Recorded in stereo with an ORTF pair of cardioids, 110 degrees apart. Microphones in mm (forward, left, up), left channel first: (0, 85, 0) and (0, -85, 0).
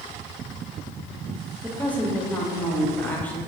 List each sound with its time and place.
1.6 s a woman speaking: 10° left, 0.7 m